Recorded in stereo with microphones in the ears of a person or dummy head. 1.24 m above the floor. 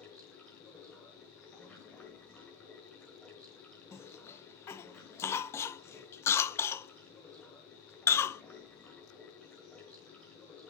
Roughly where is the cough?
Centre.